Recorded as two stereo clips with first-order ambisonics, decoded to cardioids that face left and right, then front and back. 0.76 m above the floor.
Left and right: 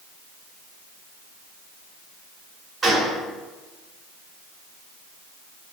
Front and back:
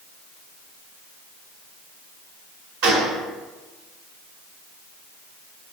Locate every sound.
2.8 s a gunshot: 165° right, 1.0 m